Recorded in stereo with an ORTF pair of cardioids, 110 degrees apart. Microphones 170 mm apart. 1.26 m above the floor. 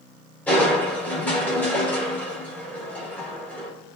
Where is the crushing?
10° left, 4.5 m.